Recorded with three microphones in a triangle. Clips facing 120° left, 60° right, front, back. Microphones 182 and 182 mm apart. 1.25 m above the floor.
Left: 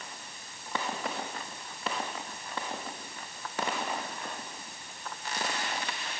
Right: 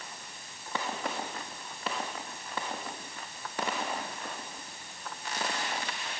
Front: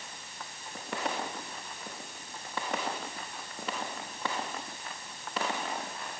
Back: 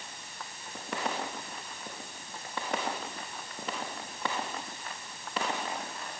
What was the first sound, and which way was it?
Only background noise.